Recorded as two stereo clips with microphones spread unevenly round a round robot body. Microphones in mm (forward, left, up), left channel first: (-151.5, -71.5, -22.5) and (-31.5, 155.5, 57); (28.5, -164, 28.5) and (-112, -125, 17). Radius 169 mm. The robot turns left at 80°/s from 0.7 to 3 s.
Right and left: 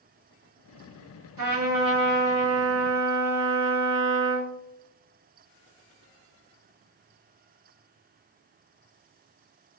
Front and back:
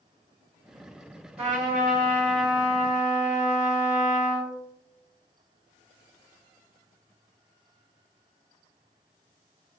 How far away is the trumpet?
About 1.4 m.